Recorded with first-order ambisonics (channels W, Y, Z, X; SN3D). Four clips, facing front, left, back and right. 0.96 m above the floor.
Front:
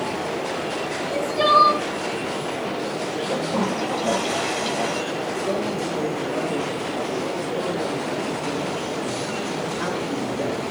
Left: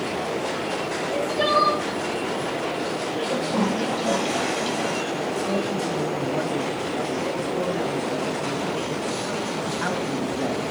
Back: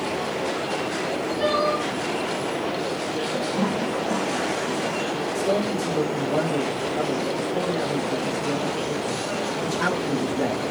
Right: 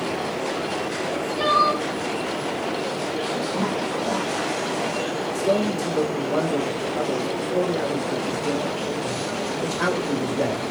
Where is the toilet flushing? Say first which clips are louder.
Left 4 dB, front 2 dB; 20° left, 8.5 m.